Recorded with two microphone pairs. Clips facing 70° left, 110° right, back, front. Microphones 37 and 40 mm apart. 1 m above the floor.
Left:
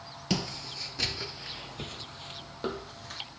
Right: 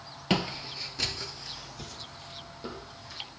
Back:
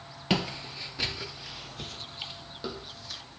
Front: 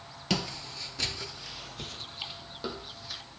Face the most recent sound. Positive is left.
turn(degrees=85)